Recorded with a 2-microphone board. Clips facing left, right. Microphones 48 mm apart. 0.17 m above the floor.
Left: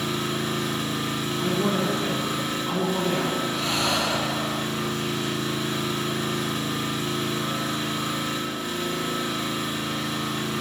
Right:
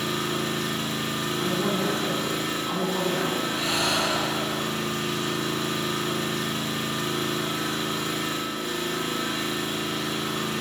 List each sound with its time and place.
0.0 s an engine running: 75° right (ahead or behind), 1.9 m
1.4 s a woman speaking: centre (ahead or behind), 1.2 m
3.5 s breathing: 10° right (ahead or behind), 1.2 m